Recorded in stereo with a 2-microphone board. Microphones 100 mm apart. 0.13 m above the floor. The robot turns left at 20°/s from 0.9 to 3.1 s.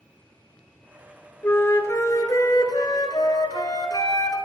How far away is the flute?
About 0.6 m.